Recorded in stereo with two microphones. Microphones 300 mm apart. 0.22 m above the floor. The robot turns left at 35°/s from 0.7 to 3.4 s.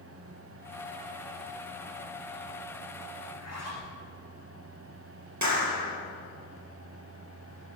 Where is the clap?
65° right (ahead or behind), 3.5 m.